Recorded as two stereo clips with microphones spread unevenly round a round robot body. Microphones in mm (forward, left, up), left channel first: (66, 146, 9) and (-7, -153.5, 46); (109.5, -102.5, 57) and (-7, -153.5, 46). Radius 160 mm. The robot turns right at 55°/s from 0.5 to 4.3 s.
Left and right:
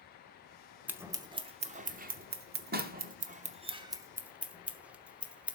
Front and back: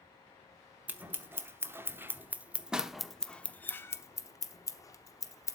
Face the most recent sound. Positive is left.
turn(degrees=-10)